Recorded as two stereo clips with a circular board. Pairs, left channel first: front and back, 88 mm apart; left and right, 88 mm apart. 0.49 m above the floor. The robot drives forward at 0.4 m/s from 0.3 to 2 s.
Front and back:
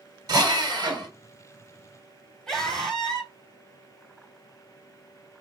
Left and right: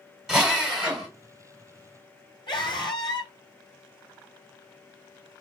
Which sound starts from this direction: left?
A scream, at 2.5 s.